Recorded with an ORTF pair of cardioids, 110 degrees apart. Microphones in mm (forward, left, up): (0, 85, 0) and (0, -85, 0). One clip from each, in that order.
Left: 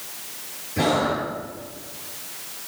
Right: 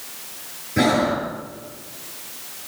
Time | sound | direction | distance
0.8 | breathing | 45° right | 8.5 m